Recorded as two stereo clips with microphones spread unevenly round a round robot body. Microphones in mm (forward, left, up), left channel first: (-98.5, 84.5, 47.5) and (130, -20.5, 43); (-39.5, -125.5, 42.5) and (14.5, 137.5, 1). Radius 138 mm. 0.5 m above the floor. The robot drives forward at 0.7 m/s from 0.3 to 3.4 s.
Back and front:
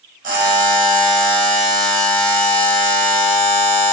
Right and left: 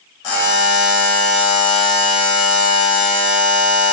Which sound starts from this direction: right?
A buzzer, at 0.2 s.